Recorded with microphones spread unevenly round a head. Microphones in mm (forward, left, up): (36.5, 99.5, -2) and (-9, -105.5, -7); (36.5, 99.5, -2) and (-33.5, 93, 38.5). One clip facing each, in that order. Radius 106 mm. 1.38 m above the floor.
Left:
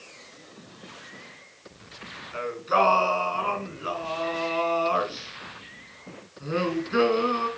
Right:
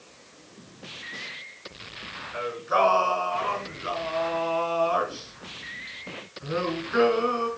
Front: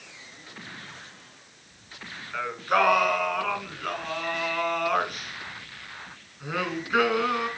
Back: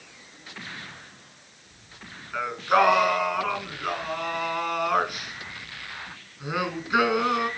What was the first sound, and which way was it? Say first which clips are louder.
Singing: left 1 dB, back 3 dB; 115° left.